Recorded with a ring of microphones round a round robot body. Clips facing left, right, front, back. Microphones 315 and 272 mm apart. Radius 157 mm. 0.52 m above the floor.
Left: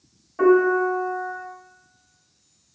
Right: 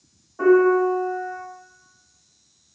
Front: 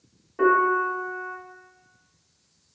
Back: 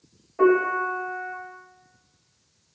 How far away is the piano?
About 1.0 m.